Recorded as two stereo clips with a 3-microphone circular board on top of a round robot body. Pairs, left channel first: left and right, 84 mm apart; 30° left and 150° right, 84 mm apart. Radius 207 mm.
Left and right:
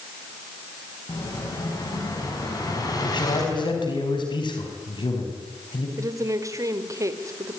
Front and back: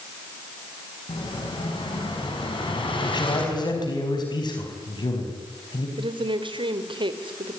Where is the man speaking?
65° left, 4.5 m.